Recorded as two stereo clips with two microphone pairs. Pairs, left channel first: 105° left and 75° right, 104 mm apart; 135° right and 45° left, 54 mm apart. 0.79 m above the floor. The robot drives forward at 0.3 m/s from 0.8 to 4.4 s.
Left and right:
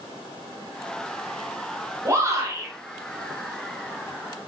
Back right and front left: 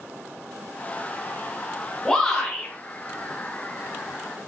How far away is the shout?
About 1.1 m.